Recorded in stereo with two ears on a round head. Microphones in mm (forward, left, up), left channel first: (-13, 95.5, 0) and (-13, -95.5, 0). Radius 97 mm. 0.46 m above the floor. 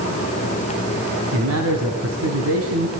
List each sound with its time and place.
1.3 s a man speaking: 75° right (ahead or behind), 4.5 m